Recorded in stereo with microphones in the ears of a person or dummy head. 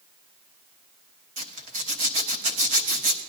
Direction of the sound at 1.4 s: 35° right (ahead or behind).